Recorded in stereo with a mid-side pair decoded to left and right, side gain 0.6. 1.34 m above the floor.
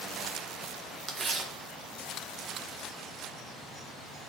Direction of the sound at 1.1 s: 35° right.